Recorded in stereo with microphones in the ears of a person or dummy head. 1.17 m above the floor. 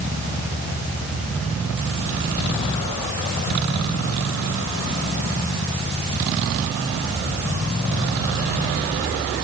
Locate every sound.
Only background noise.